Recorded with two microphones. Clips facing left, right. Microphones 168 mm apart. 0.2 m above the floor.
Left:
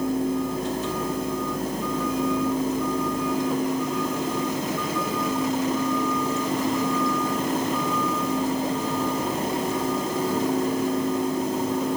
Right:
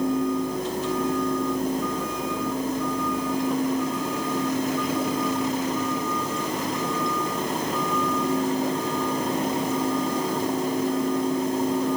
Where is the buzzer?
No buzzer in this recording.